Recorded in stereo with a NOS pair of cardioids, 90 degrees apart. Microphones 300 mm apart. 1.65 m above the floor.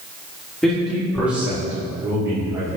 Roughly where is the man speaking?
Ahead.